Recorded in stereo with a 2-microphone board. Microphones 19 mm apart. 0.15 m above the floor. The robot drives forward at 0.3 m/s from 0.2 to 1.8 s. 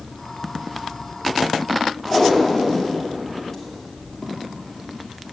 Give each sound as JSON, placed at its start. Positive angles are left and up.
{"t": 2.0, "sound": "tape being pulled", "side_deg": 20, "distance_m": 2.0}